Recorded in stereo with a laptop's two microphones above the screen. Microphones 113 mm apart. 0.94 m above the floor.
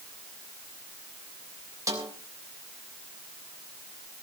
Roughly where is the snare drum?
Right.